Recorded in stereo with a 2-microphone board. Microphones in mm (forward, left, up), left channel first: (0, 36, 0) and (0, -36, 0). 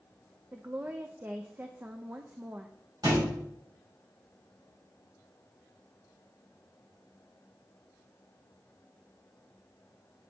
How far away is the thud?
About 4 m.